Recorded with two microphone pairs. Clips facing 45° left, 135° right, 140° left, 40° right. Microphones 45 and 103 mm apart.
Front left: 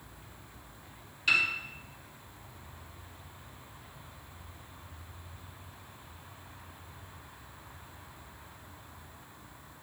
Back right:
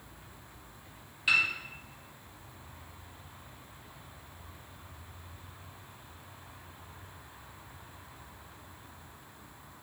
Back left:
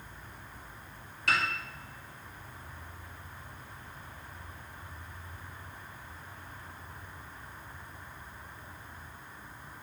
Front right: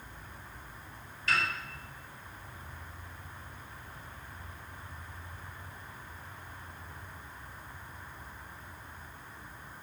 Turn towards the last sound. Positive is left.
turn(degrees=140)